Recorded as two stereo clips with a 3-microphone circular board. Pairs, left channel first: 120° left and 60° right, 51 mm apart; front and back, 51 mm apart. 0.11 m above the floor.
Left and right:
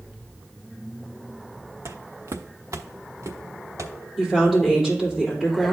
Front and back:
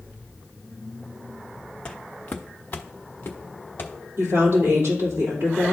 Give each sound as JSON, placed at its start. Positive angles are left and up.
{"t": 1.9, "sound": "footsteps", "azimuth_deg": -70, "distance_m": 0.5}
{"t": 4.2, "sound": "a woman speaking", "azimuth_deg": -145, "distance_m": 3.5}